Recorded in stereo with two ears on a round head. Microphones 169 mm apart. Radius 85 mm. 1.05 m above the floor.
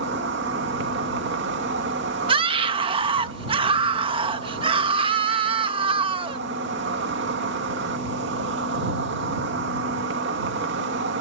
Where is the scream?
30° right (ahead or behind).